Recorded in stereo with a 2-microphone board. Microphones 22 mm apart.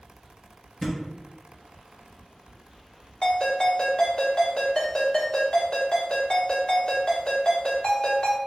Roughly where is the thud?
Centre.